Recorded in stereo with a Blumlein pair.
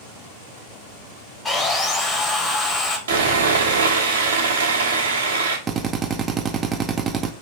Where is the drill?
20° right, 0.5 m.